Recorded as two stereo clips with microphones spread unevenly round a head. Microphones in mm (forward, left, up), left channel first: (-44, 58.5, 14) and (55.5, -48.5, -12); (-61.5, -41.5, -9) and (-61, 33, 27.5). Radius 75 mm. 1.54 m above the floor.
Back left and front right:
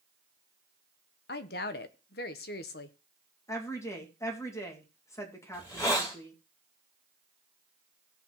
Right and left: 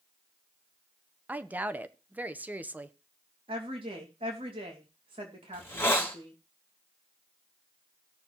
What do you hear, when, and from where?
1.3 s a woman speaking: 155° left, 1.1 m
3.5 s a woman speaking: 60° left, 2 m
5.5 s a hiss: 155° right, 4 m